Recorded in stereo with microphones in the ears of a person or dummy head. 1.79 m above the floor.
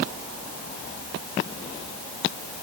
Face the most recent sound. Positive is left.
No sound to turn to.